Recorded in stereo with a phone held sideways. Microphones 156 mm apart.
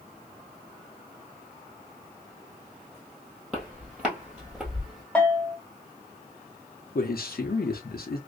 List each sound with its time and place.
3.5 s footsteps: 10° right (ahead or behind), 1.8 m; by 5.0 s 5° right (ahead or behind), 1.4 m
5.2 s a bell: 10° left (ahead or behind), 0.7 m
7.0 s a man speaking: 80° left, 0.6 m